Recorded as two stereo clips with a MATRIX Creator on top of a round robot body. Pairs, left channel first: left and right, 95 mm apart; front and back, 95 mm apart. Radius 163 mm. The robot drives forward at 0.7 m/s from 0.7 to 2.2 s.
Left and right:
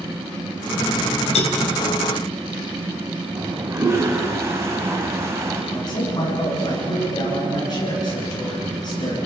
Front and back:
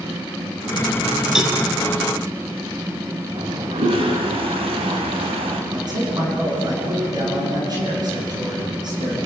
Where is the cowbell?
95° left, 1.7 m; by 1.6 s 100° left, 1.8 m.